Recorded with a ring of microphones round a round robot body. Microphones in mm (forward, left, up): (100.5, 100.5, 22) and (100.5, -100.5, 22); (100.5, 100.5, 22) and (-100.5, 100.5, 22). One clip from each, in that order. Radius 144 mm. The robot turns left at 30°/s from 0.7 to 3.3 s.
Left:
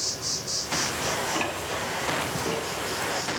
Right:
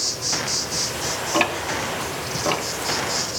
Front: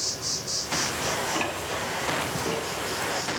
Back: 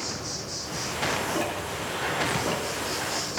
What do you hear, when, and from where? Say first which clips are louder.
0.0 s an insect: right 6 dB, front 3 dB; 35° right, 1.8 m; by 3.4 s 110° right, 1.8 m
1.3 s ticking: right 7 dB, front 1 dB; 60° right, 1.0 m; by 2.7 s 100° right, 1.0 m